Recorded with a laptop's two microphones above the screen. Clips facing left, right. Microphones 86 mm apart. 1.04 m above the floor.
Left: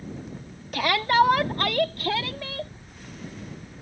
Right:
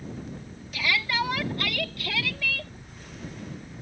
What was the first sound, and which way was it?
A shout, 55° left (ahead or behind).